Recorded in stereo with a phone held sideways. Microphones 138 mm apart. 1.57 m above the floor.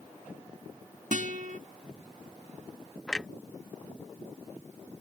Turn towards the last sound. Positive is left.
turn(degrees=5)  # may be behind; listen again after turning